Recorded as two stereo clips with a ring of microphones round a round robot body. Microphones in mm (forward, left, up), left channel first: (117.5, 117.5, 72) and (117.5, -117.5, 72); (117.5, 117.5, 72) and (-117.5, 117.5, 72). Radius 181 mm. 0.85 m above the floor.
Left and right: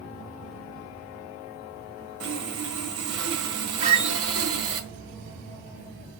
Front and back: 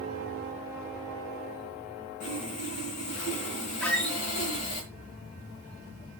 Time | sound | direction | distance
2.2 | sawing | 70° right | 1.6 m
3.8 | a squeak | 85° right | 0.5 m